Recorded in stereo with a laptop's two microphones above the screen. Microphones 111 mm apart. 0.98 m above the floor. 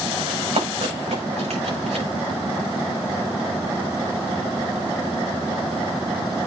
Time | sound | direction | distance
0.3 | running footsteps | 80° right | 7 m